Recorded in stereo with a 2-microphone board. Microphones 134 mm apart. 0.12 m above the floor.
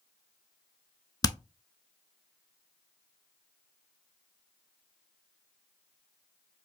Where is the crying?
I don't hear crying.